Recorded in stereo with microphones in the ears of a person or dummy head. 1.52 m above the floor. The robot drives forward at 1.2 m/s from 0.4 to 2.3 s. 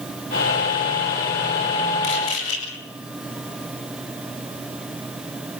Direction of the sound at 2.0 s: 75° left (ahead or behind).